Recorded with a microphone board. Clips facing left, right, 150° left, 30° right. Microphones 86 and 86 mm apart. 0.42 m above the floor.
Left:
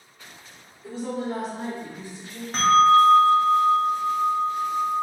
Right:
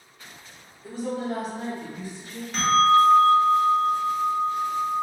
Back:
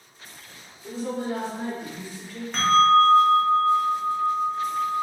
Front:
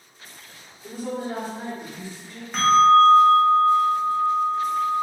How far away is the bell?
About 0.6 m.